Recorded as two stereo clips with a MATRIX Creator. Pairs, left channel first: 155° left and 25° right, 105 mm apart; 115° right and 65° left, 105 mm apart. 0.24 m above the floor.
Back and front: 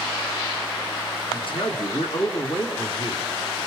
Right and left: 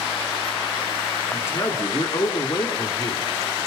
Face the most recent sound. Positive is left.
turn(degrees=-160)